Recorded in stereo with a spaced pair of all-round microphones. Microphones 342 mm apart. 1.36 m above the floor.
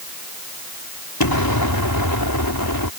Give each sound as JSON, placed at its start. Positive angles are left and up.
{"t": 1.2, "sound": "an explosion", "side_deg": 75}